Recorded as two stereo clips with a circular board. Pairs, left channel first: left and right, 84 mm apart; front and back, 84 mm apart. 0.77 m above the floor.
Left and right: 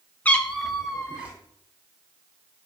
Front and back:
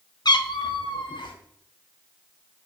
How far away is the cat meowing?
About 0.7 m.